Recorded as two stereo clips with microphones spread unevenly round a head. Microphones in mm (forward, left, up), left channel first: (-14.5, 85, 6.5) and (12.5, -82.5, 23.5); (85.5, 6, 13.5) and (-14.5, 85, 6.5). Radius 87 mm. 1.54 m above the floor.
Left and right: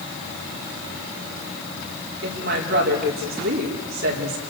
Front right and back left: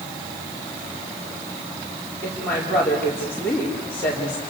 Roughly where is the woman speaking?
Behind right.